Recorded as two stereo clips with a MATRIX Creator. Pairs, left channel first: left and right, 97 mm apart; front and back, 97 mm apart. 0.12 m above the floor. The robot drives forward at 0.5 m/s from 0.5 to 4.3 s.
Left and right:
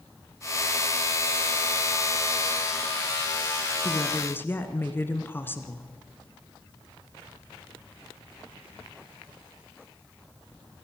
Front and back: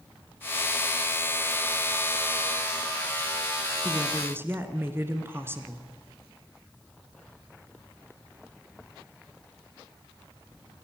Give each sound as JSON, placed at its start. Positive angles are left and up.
{"t": 3.8, "sound": "a woman speaking", "azimuth_deg": 125, "distance_m": 1.6}